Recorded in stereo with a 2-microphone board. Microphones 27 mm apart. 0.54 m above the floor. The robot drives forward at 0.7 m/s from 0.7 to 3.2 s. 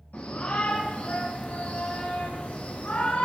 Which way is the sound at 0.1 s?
80° left.